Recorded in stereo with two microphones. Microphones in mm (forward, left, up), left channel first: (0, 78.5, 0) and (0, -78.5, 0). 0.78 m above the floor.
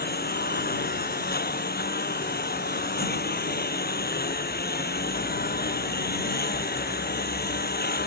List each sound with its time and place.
0.0 s a lawn mower: 90° left